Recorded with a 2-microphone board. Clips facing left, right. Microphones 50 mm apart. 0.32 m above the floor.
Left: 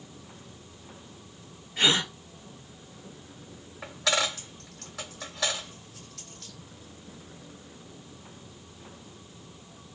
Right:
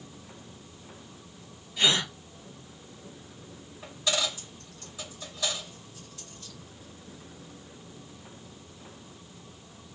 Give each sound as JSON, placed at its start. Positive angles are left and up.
{"t": 1.8, "sound": "a gasp", "side_deg": 50, "distance_m": 1.9}
{"t": 3.8, "sound": "a dropped coin", "side_deg": 80, "distance_m": 2.5}